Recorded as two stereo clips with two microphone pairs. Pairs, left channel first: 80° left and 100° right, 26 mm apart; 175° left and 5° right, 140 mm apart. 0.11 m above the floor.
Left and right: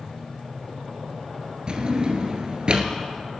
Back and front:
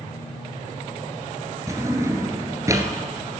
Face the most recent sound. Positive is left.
turn(degrees=-65)